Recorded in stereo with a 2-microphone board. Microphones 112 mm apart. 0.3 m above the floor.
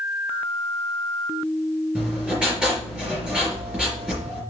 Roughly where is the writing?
Centre.